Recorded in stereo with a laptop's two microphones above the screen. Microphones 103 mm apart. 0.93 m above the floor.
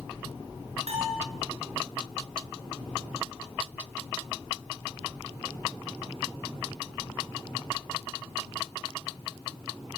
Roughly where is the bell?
Right.